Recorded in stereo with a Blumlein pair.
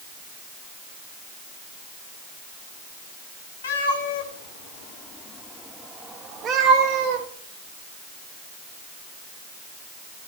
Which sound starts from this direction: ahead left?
A cat meowing, at 3.6 s.